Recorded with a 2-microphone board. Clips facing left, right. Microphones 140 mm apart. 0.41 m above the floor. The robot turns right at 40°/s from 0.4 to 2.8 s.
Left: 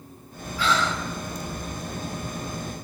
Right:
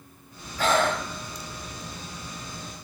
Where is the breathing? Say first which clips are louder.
Right 2 dB; 45° right (ahead or behind), 0.5 m; by 1.5 s 75° right (ahead or behind), 0.5 m.